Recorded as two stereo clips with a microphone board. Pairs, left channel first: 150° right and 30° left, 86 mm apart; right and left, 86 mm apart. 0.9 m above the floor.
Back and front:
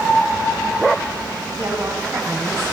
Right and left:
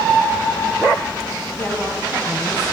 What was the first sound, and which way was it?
A woman speaking, 20° right.